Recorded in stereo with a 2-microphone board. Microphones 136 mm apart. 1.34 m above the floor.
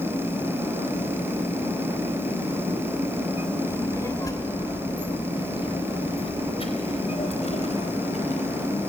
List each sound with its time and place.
3.7 s a child speaking: 20° left (ahead or behind), 3 m; by 8.7 s 60° left (ahead or behind), 4.5 m